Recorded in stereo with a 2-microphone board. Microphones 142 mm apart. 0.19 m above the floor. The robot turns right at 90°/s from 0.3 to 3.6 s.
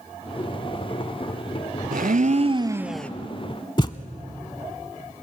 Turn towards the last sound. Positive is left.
turn(degrees=35)  # may be behind; listen again after turning